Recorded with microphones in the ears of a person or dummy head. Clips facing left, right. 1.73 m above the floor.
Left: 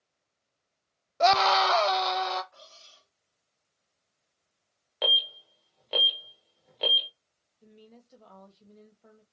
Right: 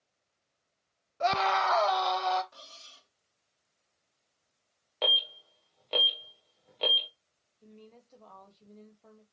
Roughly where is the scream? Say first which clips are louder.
Left 5 dB; left.